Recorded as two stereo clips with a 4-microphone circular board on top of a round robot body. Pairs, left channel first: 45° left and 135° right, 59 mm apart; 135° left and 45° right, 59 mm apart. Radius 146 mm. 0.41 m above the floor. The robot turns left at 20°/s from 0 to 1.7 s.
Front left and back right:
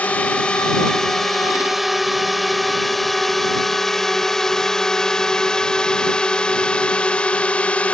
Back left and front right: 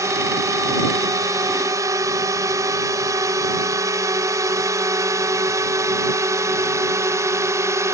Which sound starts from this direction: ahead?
A drone, at 0.0 s.